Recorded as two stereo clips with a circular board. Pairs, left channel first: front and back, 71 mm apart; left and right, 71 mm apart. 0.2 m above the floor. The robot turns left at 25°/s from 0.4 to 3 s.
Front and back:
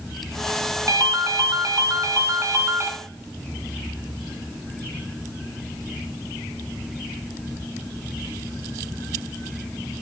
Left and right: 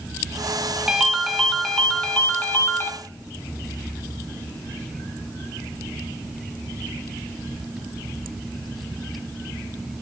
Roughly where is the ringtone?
Behind.